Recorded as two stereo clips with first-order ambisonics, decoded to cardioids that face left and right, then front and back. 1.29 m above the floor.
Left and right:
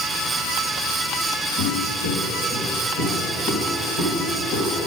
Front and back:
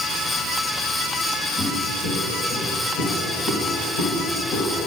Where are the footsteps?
65° left, 2.5 m; by 4.8 s 35° left, 4 m.